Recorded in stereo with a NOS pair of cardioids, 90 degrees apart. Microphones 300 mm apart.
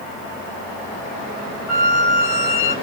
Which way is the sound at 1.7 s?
60° left.